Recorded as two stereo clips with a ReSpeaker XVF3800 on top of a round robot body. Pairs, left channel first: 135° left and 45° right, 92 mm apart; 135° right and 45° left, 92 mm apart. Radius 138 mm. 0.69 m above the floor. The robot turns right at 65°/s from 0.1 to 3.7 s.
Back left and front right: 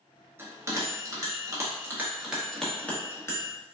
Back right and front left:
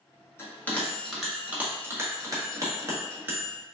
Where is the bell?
95° right, 1.1 m; by 3.5 s 105° left, 1.1 m.